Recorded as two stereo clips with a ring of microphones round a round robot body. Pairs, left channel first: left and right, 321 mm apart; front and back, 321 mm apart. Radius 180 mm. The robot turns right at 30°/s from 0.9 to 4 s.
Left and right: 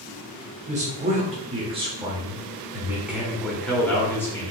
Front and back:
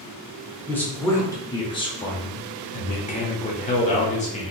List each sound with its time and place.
0.7 s a man speaking: 75° right, 1.0 m; by 4.5 s 20° left, 1.0 m